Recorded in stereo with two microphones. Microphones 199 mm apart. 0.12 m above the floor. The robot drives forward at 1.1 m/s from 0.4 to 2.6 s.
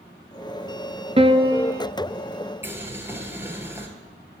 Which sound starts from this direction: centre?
Boiling, at 2.6 s.